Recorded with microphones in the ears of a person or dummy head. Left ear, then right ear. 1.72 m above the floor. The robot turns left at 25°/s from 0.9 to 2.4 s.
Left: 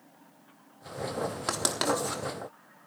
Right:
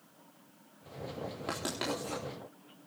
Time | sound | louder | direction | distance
1.5 | writing | left 7 dB | 55° left (ahead or behind) | 3.5 m